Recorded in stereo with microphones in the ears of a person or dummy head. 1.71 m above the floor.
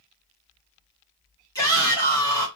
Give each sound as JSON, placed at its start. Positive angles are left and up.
{"t": 1.6, "sound": "a shout", "side_deg": 25, "distance_m": 1.6}